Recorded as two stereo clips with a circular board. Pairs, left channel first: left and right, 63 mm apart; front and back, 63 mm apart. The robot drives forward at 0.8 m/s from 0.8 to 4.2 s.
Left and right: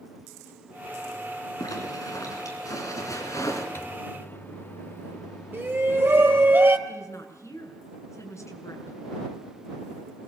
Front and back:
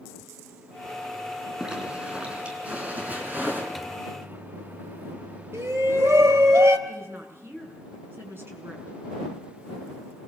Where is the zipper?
105° left, 4.5 m; by 3.6 s 120° left, 5.5 m.